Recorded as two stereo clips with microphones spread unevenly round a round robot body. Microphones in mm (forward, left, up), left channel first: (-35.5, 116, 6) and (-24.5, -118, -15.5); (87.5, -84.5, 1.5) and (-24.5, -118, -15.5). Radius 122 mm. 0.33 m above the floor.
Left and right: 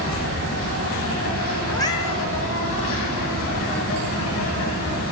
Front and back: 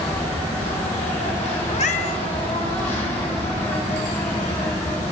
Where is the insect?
60° left, 3 m.